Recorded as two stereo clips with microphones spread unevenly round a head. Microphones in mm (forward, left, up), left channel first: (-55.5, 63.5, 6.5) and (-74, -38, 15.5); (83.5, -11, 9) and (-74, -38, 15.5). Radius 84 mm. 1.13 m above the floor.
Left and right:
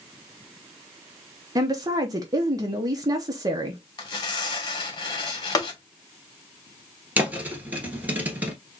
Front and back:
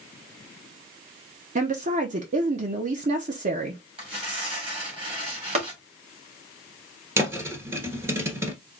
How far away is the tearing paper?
About 1.8 m.